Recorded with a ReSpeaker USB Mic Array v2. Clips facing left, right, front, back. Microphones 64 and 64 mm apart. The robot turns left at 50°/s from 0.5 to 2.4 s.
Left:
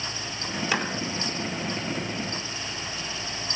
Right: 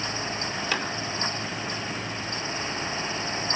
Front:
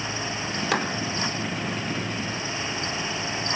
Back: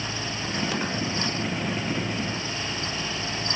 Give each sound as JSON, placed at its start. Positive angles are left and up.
{"t": 0.7, "sound": "a clap", "azimuth_deg": 15, "distance_m": 4.0}